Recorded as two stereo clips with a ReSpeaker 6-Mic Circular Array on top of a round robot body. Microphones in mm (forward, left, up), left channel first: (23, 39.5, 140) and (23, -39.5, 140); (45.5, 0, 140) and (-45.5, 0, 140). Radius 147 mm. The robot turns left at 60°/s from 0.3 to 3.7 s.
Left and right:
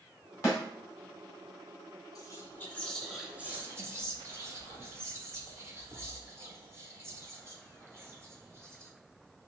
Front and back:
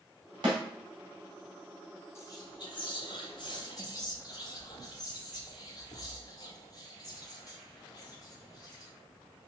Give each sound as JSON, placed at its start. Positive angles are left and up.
{"t": 0.4, "sound": "a snare drum", "azimuth_deg": 145, "distance_m": 2.0}
{"t": 2.1, "sound": "whispering", "azimuth_deg": 55, "distance_m": 1.5}